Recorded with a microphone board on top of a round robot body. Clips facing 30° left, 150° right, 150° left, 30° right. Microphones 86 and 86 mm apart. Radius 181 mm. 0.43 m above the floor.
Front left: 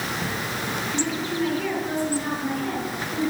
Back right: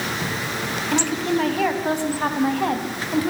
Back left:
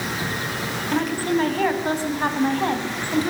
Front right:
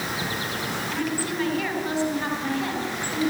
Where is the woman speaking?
165° right, 3.5 m.